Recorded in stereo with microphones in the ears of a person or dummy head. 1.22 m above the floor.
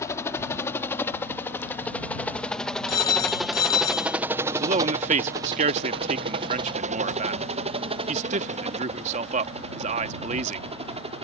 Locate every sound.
0.0 s a helicopter: 20° left (ahead or behind); by 11.2 s 40° right (ahead or behind)
2.9 s a phone ringing: 30° left (ahead or behind)
4.5 s a man speaking: 30° right (ahead or behind)